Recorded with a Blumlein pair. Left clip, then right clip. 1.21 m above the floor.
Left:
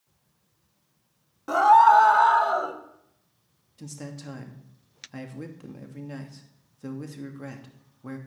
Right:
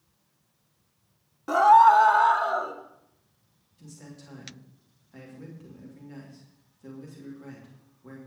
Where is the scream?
Straight ahead, 1.6 m; by 2.8 s 10° left, 2.5 m.